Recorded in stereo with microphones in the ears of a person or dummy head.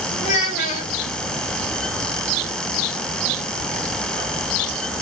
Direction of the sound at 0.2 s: 45° left (ahead or behind).